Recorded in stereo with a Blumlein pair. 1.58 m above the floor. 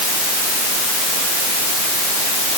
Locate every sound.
Only background noise.